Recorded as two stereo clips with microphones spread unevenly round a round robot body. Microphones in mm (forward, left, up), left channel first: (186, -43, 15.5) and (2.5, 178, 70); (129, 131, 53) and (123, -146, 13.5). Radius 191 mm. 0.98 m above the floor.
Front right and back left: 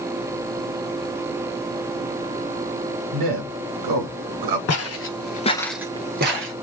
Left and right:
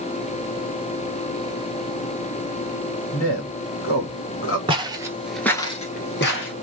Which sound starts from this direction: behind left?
A man speaking, at 3.1 s.